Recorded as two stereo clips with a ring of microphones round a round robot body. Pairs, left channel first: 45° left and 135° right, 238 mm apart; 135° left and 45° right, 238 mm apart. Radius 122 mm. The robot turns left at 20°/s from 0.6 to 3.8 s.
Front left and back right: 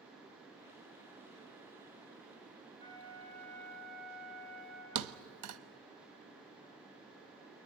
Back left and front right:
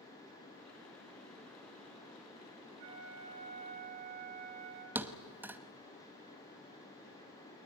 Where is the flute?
25° right, 5 m; by 4.8 s 45° right, 5 m.